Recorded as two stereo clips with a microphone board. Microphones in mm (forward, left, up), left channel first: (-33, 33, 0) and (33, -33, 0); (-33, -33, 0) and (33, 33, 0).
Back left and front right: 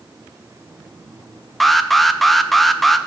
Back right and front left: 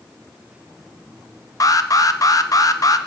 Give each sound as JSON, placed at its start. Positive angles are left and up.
{"t": 1.6, "sound": "an alarm", "azimuth_deg": -135, "distance_m": 0.6}